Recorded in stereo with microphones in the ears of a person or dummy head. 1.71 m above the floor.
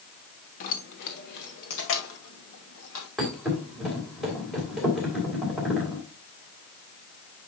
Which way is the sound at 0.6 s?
45° left (ahead or behind).